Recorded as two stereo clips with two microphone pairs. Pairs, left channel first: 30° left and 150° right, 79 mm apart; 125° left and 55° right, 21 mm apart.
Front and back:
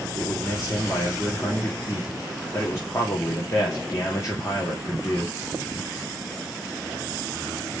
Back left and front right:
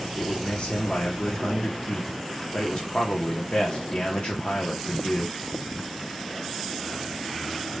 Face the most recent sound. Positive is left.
turn(degrees=80)